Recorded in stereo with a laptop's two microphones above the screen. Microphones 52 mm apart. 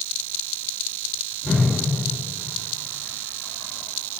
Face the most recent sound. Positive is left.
turn(degrees=-40)  # may be behind; listen again after turning